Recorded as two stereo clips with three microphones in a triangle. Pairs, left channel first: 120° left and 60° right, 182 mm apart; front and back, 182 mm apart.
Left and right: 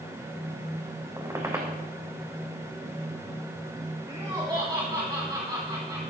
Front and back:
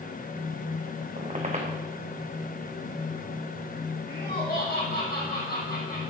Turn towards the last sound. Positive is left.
turn(degrees=0)